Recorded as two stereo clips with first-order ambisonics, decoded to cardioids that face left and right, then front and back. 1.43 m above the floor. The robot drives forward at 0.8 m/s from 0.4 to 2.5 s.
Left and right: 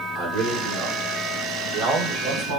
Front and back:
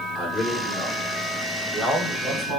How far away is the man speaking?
About 2 m.